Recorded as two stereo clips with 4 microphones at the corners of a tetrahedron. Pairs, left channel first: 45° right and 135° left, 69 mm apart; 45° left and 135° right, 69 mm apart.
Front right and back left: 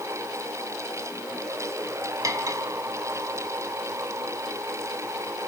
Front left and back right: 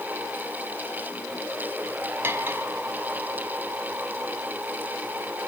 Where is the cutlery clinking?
165° left, 2.5 m.